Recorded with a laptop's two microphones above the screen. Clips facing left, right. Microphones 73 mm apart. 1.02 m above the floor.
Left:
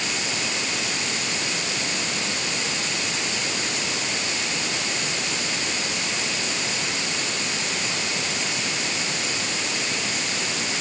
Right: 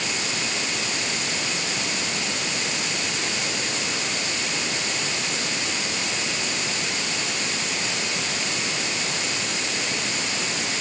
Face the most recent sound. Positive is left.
No sound to turn to.